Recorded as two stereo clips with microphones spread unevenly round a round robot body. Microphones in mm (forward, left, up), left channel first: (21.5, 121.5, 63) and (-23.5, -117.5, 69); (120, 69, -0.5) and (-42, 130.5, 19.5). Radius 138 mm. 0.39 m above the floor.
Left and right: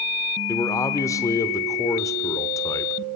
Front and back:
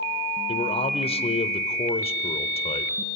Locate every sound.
0.5 s a man speaking: 10° left, 1.0 m